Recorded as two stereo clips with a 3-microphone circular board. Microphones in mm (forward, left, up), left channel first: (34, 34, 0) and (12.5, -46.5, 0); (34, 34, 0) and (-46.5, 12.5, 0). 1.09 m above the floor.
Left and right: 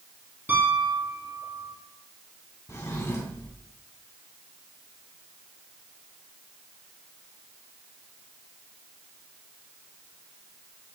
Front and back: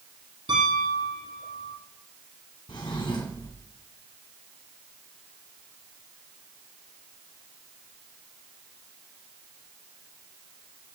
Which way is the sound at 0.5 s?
170° right.